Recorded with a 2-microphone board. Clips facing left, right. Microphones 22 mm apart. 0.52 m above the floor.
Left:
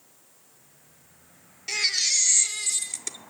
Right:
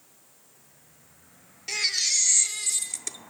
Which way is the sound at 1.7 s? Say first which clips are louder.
Left 1 dB; 5° left (ahead or behind).